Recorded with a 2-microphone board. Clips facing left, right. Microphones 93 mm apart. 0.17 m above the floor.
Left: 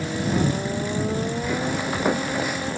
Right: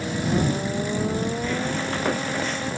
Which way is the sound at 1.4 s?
15° left (ahead or behind).